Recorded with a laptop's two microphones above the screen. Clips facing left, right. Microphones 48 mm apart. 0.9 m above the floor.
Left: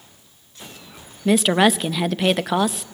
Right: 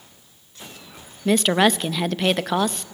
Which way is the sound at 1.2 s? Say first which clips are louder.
Left 1 dB; 5° left (ahead or behind).